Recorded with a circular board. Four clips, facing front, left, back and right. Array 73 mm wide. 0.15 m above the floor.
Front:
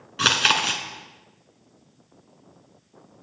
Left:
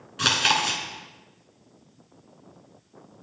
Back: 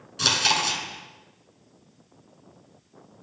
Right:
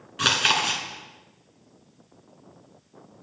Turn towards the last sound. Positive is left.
turn(degrees=-10)